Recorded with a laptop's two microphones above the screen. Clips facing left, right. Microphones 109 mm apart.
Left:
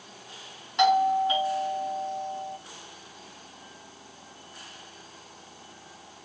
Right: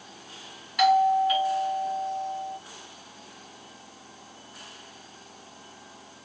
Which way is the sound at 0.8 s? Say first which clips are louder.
Right 2 dB; 25° left (ahead or behind).